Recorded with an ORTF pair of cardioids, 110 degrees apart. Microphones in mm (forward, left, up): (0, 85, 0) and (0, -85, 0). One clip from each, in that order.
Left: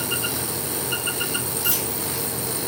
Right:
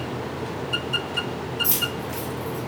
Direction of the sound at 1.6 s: Straight ahead.